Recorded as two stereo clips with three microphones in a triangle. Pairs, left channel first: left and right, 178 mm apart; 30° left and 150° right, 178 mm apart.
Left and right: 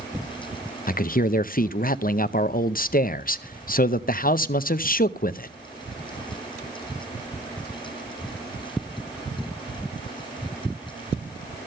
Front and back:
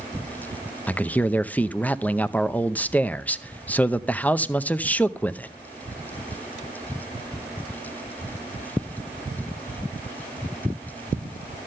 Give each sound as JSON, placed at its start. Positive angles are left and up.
{"t": 0.9, "sound": "a man speaking", "azimuth_deg": 110, "distance_m": 0.6}